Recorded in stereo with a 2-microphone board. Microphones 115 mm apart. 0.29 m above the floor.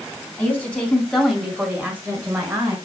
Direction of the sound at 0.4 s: 15° left (ahead or behind).